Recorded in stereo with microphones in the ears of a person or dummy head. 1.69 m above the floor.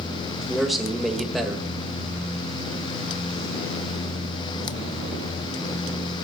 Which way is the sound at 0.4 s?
Centre (ahead or behind).